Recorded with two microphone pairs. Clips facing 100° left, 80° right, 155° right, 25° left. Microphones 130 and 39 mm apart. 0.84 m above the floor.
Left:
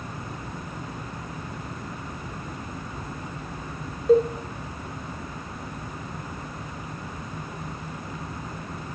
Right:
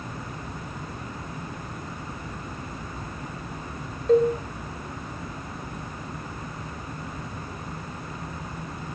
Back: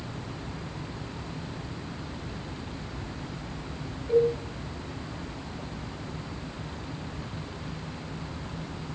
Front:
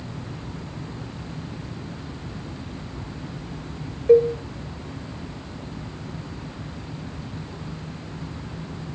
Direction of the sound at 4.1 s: 15° left.